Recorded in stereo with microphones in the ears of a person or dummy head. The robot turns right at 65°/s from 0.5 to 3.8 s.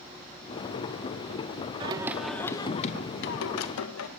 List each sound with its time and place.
1.8 s singing: 30° right, 0.8 m; by 4.1 s 100° left, 0.8 m